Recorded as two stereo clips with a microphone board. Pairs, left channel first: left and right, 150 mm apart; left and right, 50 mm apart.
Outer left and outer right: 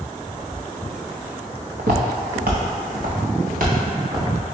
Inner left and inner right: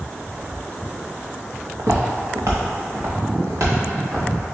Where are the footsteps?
75° right (ahead or behind), 1.1 m; by 4.5 s 65° right (ahead or behind), 2.5 m.